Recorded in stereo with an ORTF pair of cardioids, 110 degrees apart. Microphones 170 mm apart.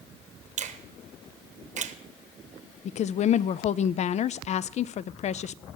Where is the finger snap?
50° right, 1.1 m.